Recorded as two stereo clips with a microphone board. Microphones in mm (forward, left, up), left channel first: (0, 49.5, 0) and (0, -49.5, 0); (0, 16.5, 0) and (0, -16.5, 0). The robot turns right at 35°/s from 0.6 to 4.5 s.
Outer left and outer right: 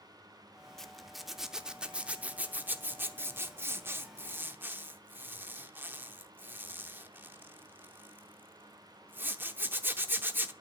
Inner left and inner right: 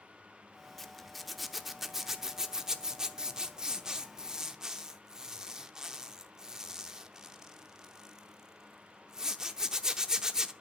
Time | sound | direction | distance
0.8 | a zipper | 5° left (ahead or behind) | 0.7 m